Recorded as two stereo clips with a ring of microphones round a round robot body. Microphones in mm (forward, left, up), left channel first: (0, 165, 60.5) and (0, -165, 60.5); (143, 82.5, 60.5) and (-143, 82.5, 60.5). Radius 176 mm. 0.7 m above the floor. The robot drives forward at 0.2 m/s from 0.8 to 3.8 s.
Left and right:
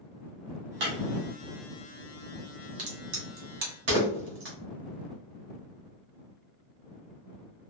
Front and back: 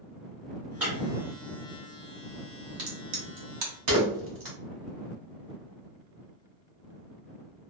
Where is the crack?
140° right, 0.9 m; by 4.5 s 150° right, 1.1 m.